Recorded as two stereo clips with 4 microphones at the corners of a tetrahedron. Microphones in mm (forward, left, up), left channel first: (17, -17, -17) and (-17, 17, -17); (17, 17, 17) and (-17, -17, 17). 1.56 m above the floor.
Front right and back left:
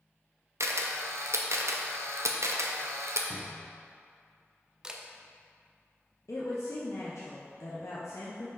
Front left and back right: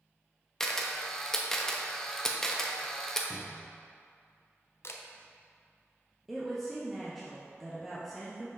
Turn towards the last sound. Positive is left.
turn(degrees=-45)